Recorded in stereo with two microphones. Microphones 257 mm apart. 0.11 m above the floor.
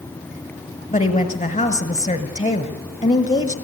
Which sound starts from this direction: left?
A woman speaking, at 0.9 s.